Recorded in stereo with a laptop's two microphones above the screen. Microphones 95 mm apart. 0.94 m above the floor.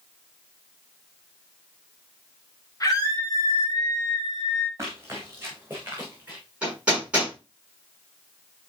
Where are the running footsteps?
30° right (ahead or behind), 3.5 m; by 6.4 s 15° right (ahead or behind), 4.5 m.